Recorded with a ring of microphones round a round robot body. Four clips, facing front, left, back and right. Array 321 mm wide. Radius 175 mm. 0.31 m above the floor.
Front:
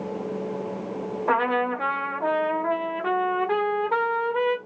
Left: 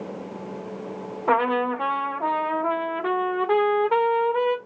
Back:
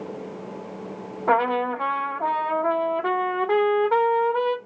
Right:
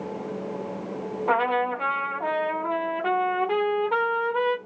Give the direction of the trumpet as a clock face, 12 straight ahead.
7 o'clock.